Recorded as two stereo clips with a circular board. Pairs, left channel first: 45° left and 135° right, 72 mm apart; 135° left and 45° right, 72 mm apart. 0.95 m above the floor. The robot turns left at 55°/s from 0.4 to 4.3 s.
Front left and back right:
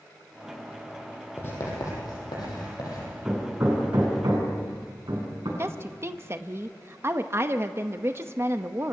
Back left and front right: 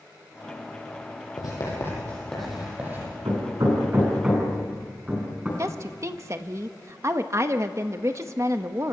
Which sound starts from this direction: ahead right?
Hammering, at 3.2 s.